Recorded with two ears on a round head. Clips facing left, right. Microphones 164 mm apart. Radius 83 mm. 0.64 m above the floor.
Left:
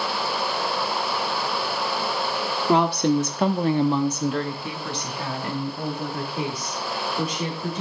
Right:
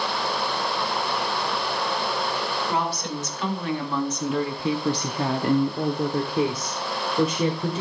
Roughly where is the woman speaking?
Left.